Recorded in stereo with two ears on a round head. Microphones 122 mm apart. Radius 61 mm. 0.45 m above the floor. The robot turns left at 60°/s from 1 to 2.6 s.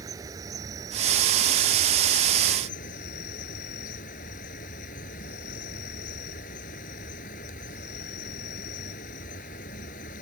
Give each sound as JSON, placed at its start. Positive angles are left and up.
{"t": 0.0, "sound": "an insect", "azimuth_deg": -155}